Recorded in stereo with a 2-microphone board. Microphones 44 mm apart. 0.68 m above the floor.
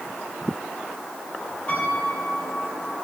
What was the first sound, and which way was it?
A piano, 30° left (ahead or behind).